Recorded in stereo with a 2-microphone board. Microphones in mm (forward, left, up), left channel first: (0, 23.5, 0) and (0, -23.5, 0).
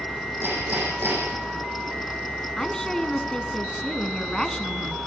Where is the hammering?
50° right (ahead or behind), 8.5 m.